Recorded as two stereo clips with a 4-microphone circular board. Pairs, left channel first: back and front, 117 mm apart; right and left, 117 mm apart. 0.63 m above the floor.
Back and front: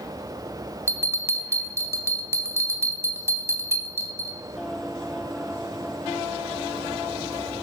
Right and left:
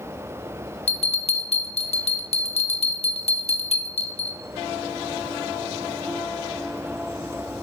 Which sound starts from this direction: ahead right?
A bell, at 0.9 s.